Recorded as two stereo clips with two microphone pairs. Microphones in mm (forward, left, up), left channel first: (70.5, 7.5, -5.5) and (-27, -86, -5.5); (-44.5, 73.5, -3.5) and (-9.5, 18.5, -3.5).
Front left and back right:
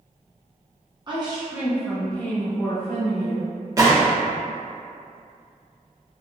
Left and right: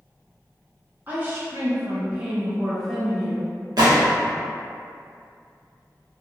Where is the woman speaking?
105° right, 1.0 m; by 3.5 s 40° left, 1.2 m.